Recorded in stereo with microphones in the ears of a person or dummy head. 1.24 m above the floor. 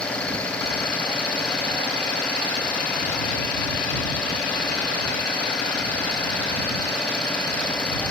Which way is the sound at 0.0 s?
10° left (ahead or behind).